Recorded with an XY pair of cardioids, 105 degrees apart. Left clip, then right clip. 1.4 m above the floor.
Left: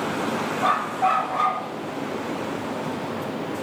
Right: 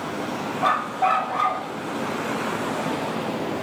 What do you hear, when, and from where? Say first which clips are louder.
0.6 s a dog barking: right 1 dB; 20° right, 3 m